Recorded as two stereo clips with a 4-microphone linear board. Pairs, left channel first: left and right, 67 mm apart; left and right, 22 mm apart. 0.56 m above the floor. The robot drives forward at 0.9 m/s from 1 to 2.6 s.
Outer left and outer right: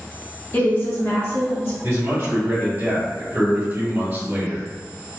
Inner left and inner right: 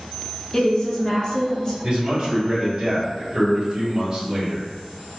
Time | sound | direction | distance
0.5 | a woman speaking | 35° left (ahead or behind) | 1.2 m
1.8 | a man speaking | 45° right (ahead or behind) | 1.9 m